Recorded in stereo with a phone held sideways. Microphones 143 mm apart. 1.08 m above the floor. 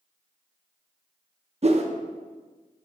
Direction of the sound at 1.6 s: 50° right (ahead or behind).